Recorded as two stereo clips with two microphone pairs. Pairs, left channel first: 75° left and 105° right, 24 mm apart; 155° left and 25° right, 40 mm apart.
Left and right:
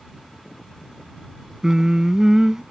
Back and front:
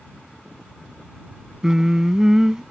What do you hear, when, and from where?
1.6 s singing: 80° right